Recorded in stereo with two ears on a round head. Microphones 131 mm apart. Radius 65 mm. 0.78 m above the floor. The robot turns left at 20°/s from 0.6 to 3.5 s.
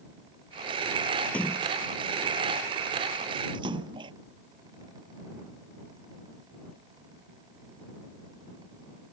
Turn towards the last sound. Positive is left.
turn(degrees=-35)  # may be behind; listen again after turning